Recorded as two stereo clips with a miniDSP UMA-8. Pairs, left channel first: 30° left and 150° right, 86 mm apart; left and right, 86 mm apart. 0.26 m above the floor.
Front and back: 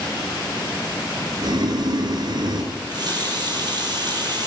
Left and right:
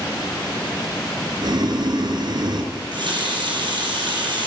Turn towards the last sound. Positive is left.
turn(degrees=-115)